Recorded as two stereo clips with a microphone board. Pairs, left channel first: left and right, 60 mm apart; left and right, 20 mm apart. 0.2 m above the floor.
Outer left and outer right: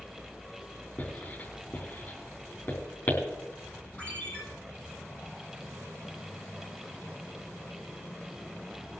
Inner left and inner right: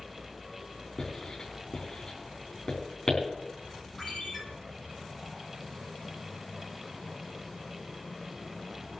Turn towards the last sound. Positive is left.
turn(degrees=25)  # may be behind; listen again after turning